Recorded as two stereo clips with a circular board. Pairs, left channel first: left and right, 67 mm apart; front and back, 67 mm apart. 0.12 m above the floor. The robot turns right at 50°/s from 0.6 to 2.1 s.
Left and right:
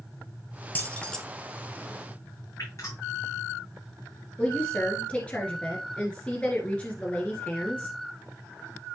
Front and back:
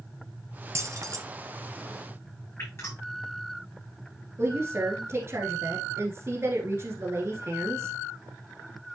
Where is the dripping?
50° left, 6.5 m.